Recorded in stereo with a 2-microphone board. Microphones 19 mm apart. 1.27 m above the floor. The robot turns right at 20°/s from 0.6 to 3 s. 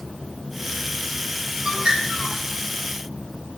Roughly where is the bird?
Right.